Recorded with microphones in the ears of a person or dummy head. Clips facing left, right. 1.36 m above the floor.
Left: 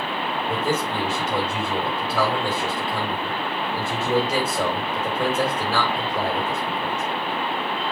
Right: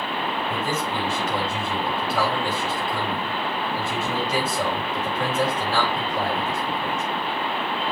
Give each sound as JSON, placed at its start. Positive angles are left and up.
{"t": 0.5, "sound": "a man speaking", "side_deg": 85, "distance_m": 4.0}